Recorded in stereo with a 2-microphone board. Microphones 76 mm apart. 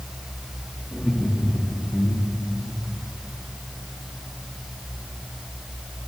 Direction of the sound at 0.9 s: 15° left (ahead or behind).